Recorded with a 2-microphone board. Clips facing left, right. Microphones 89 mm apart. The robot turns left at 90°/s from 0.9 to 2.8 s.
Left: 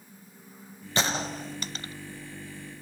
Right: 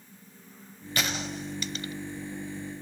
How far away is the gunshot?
About 0.6 m.